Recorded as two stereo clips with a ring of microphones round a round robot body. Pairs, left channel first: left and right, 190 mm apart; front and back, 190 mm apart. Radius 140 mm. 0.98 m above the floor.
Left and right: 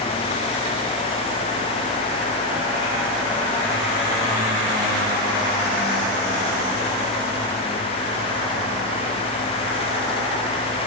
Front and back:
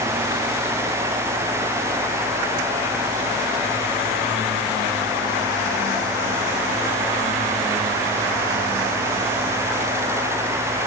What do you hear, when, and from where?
Only background noise.